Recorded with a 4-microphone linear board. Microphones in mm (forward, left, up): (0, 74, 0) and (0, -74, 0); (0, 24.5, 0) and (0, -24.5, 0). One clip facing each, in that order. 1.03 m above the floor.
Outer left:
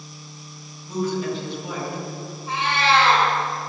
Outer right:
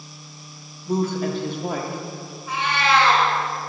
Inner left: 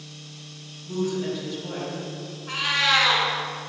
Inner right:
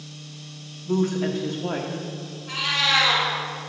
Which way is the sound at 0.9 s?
55° right (ahead or behind).